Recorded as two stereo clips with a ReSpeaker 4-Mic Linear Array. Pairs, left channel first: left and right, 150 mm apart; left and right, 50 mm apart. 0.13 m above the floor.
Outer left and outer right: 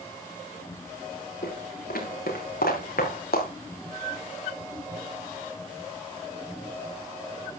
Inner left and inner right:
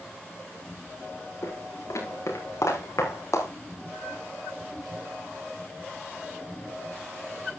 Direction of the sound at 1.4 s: 75° left (ahead or behind).